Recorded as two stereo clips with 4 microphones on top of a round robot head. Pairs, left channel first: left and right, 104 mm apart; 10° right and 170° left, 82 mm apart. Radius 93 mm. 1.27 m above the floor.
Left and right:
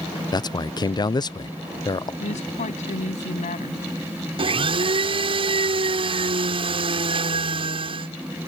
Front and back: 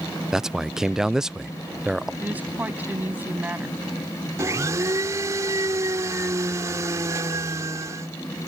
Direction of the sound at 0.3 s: 90° left.